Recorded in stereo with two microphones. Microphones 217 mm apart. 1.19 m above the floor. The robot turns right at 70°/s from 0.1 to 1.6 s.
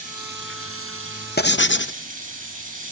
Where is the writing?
50° left (ahead or behind), 0.5 m; by 2.0 s 60° left (ahead or behind), 0.5 m.